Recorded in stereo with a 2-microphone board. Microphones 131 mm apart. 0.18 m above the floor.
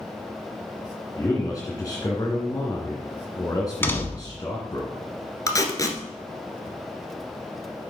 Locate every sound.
1.2 s a man speaking: 30° left (ahead or behind), 1.8 m
3.8 s a door slam: 15° left (ahead or behind), 1.1 m
5.5 s tape being pulled: 25° left (ahead or behind), 1.3 m